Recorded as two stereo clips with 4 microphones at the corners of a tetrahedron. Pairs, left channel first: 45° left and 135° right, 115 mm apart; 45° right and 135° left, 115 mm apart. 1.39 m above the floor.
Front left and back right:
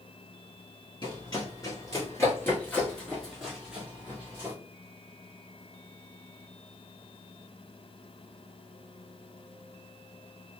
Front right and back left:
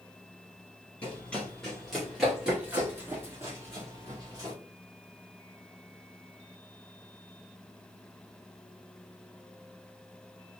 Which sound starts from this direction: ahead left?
Running footsteps, at 1.0 s.